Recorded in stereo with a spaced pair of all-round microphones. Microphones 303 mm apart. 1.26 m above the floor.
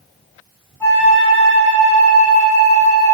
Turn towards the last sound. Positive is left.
turn(degrees=10)  # may be behind; listen again after turning